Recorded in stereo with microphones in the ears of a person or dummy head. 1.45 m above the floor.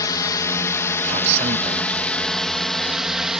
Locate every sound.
0.0 s a drone: 20° left (ahead or behind); by 3.4 s 5° right (ahead or behind)
1.0 s a man speaking: 35° right (ahead or behind)